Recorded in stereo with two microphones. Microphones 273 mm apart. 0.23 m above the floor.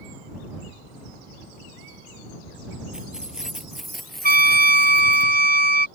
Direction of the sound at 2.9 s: 5° right (ahead or behind).